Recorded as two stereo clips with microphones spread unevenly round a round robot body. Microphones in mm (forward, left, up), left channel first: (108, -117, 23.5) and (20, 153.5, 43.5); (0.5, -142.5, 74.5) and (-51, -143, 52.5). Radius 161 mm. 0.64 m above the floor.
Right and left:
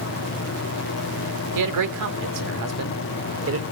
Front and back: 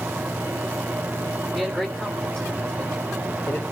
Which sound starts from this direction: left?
A man speaking, at 1.6 s.